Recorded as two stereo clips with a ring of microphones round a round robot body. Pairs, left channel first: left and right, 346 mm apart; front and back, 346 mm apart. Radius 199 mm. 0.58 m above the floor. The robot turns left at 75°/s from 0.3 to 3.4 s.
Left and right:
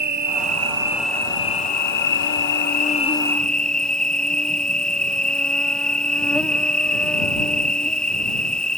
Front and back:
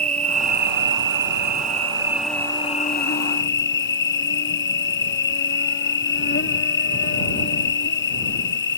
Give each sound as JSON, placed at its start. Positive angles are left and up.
{"t": 0.0, "sound": "an insect", "azimuth_deg": -125}